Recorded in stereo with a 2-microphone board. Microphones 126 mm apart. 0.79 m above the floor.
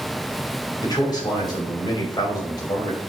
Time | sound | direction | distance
0.8 | a man speaking | 35° left (ahead or behind) | 4 m